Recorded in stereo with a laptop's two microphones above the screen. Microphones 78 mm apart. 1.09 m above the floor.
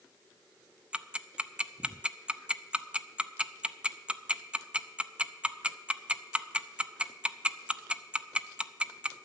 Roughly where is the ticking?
Centre.